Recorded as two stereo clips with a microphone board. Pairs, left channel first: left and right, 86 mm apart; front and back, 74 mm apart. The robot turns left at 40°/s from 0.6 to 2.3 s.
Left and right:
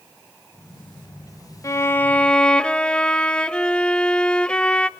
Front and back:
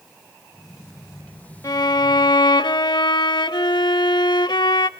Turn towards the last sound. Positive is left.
turn(degrees=10)